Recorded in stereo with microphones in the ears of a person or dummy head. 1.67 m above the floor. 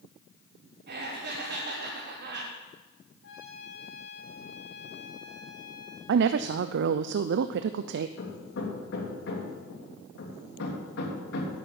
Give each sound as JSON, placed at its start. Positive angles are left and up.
{"t": 0.9, "sound": "laughter", "side_deg": -55, "distance_m": 3.0}
{"t": 3.2, "sound": "a trumpet", "side_deg": 75, "distance_m": 7.0}
{"t": 6.1, "sound": "a woman speaking", "side_deg": -65, "distance_m": 0.5}
{"t": 8.2, "sound": "hammering", "side_deg": 60, "distance_m": 2.5}